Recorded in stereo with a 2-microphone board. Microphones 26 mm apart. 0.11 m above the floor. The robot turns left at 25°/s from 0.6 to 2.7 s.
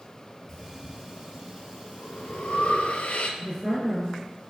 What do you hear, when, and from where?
0.5 s breathing: 30° left (ahead or behind), 0.6 m; by 3.3 s 60° left (ahead or behind), 0.6 m
3.4 s a woman speaking: 15° left (ahead or behind), 1.8 m